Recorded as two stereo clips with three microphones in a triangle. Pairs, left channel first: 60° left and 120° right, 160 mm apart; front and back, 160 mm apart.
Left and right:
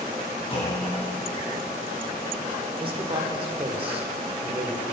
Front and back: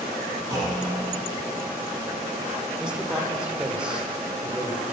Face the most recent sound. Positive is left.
turn(degrees=-100)